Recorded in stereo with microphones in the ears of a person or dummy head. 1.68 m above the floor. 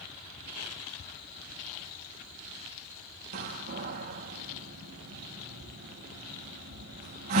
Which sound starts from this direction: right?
A door slam, at 3.3 s.